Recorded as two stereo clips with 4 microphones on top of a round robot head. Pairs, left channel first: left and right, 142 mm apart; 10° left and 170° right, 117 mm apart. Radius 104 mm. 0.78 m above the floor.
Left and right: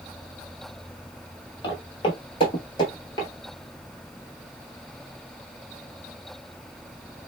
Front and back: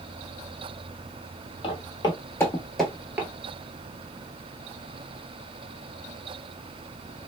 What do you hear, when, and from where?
1.6 s footsteps: 40° left, 1.1 m; by 3.3 s 140° left, 0.8 m